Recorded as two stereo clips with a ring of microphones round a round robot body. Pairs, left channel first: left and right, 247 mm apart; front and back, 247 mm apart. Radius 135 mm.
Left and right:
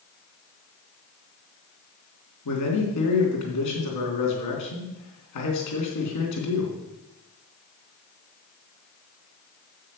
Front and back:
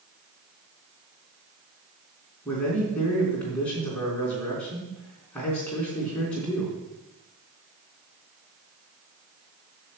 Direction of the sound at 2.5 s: 85° left.